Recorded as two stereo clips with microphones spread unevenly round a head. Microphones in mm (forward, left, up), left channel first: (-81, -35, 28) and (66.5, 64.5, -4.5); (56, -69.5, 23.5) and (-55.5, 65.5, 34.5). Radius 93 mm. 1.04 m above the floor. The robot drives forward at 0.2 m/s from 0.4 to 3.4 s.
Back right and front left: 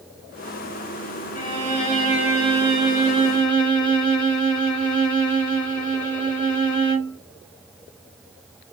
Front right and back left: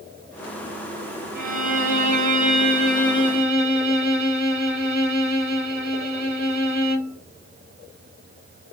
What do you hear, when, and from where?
1.4 s a violin: 175° left, 1.4 m